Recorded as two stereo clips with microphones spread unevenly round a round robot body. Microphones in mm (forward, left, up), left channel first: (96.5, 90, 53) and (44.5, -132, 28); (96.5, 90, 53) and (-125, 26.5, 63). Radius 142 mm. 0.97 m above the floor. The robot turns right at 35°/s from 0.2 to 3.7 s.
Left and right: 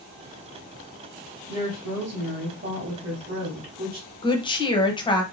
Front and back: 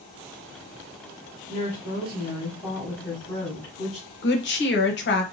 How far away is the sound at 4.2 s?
About 0.9 m.